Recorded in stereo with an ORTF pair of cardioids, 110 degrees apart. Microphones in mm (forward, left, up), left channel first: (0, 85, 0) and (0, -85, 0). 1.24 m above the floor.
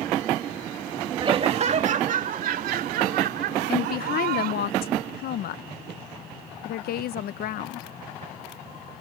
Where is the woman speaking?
65° left.